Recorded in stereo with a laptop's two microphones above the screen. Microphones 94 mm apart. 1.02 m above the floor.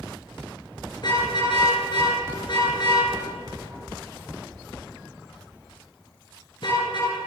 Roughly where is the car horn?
Left.